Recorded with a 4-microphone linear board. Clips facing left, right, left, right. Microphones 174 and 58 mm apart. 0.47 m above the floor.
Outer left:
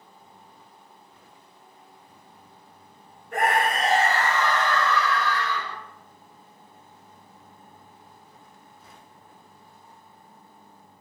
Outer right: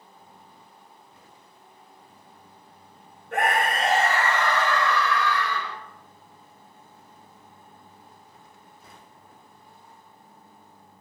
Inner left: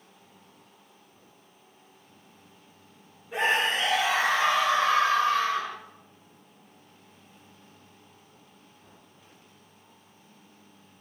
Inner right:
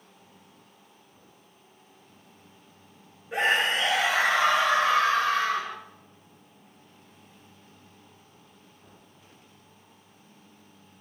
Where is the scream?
80° right, 5.5 m; by 5.8 s 70° right (ahead or behind), 5 m.